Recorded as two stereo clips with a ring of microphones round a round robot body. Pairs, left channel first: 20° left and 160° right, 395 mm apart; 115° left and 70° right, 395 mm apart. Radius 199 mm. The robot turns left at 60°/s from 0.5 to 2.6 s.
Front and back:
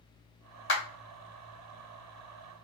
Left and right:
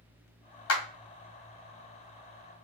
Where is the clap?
70° left, 1.2 m; by 0.8 s 65° left, 1.2 m.